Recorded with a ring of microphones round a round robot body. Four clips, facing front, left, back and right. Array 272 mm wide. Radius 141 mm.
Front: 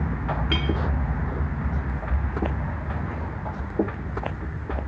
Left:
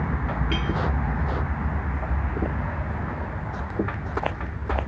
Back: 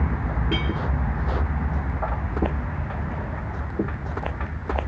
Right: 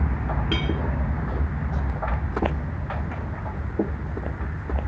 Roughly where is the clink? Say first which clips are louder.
Right 1 dB, back 2 dB; ahead.